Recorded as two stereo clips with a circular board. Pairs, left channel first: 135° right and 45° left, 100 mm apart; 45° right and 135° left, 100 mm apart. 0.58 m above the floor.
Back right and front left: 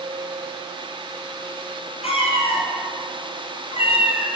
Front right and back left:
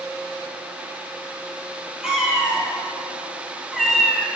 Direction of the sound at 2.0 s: 145° right.